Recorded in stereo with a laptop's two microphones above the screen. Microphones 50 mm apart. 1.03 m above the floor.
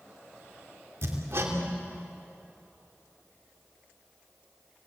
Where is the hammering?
65° right (ahead or behind), 3 m.